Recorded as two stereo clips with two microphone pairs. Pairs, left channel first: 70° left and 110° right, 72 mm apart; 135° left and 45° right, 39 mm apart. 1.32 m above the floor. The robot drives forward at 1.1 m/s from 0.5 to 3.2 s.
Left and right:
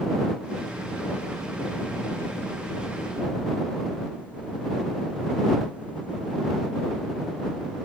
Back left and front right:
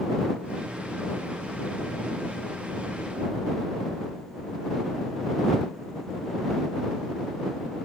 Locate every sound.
Only background noise.